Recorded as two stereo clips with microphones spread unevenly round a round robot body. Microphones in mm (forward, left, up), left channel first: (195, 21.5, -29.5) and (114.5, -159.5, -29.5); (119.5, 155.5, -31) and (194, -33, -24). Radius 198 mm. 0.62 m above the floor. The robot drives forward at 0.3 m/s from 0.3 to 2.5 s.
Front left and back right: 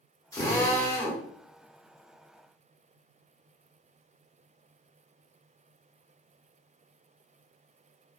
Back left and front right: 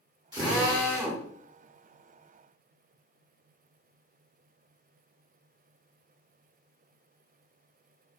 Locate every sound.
0.3 s a drill: straight ahead, 1.2 m; by 1.2 s 5° right, 1.0 m